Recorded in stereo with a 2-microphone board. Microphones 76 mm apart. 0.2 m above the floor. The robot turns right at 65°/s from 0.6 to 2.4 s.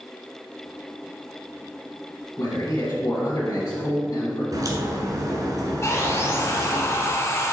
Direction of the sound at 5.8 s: 40° left (ahead or behind).